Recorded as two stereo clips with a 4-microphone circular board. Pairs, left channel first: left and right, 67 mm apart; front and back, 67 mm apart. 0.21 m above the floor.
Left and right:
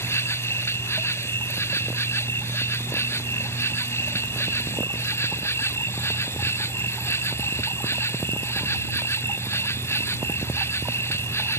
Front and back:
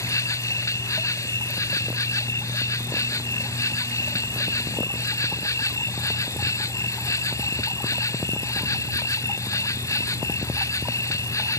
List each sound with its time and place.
0.0 s an insect: 40° left